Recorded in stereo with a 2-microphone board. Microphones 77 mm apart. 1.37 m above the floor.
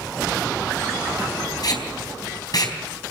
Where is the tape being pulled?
60° left (ahead or behind), 4 m.